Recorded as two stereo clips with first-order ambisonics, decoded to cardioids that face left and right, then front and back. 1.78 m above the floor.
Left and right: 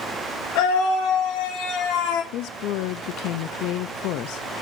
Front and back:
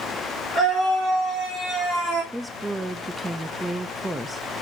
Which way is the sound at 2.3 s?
95° left.